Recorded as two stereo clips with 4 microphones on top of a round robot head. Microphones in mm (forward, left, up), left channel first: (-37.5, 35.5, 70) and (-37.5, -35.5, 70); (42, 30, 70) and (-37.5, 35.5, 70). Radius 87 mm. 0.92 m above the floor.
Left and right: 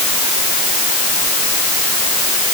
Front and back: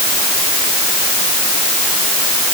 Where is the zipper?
I don't hear a zipper.